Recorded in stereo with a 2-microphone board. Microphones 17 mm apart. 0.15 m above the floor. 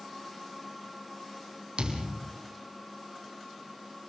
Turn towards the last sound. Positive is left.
turn(degrees=-80)